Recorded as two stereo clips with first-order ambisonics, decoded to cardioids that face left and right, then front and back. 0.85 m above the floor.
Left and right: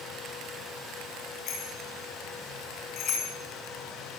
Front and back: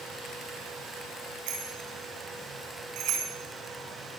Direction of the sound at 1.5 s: 140° left.